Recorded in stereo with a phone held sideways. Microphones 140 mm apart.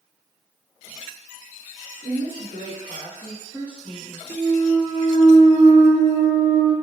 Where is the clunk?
40° right (ahead or behind), 1.1 m.